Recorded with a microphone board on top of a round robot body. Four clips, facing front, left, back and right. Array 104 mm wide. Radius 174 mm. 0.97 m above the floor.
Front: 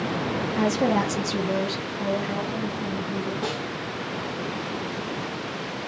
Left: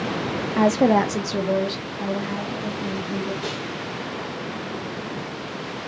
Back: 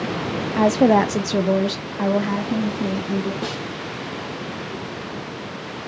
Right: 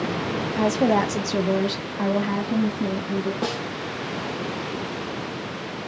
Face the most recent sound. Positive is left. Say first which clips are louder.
# right 3 dB, back 1 dB
turn(degrees=-115)